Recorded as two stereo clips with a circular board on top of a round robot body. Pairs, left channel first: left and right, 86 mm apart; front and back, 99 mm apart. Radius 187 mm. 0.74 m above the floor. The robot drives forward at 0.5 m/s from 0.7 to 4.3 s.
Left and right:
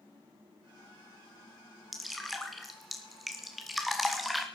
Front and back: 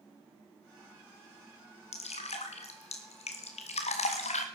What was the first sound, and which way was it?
Dripping, straight ahead.